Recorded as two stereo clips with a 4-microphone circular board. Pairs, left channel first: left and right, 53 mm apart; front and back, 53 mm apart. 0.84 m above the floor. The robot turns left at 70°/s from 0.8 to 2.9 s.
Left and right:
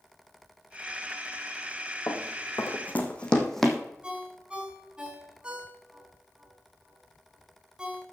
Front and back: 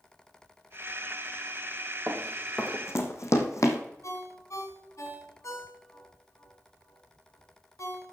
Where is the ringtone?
15° right, 3.5 m.